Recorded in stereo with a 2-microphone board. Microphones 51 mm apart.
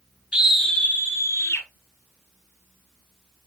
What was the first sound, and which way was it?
A scream, 20° right (ahead or behind).